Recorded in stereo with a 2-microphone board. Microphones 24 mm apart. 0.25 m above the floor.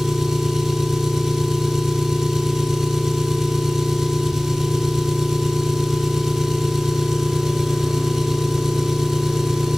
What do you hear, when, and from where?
0.0 s an engine running: 20° right (ahead or behind), 1.8 m